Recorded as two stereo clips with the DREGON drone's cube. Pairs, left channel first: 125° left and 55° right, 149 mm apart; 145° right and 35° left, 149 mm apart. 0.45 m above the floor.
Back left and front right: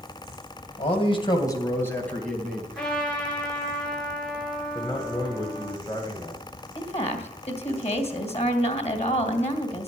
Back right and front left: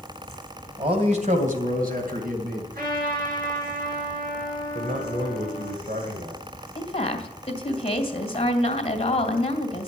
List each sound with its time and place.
0.8 s a man speaking: 85° left, 2.5 m; by 2.6 s 35° left, 4 m
2.7 s a trumpet: 40° left, 9 m
4.8 s a man speaking: 60° left, 2 m
6.8 s a woman speaking: 165° left, 2.5 m